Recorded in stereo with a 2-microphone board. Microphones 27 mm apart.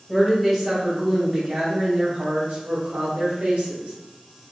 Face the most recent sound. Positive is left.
turn(degrees=-55)  # may be behind; listen again after turning